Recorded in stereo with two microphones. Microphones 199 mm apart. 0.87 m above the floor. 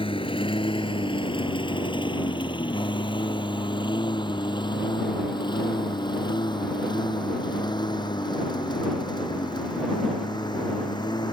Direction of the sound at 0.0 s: 25° left (ahead or behind).